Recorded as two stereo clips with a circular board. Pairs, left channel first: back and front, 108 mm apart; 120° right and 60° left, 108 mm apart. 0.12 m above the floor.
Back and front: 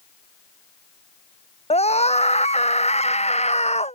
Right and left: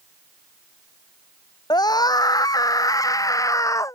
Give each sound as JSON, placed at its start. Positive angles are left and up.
{"t": 1.7, "sound": "a scream", "azimuth_deg": -170}